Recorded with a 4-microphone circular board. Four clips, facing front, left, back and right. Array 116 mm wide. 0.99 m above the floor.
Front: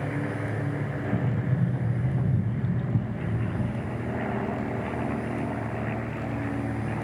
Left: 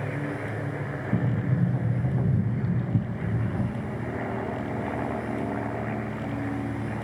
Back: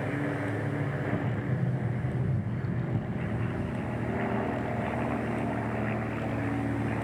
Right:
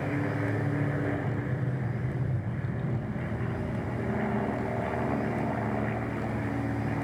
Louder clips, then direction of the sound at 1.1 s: Left 4 dB, front 3 dB; 65° left.